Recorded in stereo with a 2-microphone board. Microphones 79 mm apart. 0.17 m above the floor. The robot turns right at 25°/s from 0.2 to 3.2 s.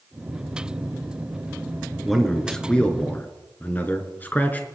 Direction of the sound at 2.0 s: Centre (ahead or behind).